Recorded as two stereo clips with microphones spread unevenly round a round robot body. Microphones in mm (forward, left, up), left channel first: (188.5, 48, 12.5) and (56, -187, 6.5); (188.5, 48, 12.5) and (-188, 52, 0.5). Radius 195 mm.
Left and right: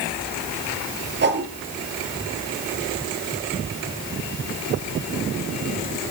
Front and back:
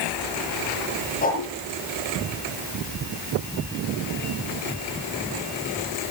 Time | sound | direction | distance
1.2 | a whoosh | 70° right | 4.5 m